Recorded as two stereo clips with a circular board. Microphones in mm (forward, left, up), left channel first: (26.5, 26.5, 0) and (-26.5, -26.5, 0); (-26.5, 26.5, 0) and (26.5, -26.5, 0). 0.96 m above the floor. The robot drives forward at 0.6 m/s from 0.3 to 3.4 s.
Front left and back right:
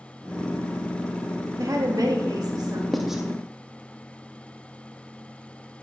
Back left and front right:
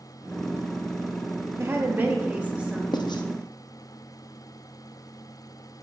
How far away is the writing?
About 0.7 m.